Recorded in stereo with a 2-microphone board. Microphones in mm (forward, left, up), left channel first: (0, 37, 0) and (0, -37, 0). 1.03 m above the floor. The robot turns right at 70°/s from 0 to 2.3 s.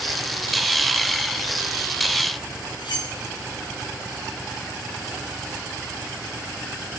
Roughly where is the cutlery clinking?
Left.